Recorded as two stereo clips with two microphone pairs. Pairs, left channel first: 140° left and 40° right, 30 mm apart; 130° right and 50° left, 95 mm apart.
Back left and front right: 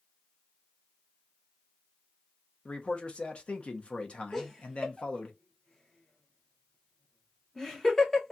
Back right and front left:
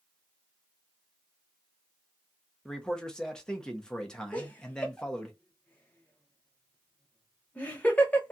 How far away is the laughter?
About 0.9 m.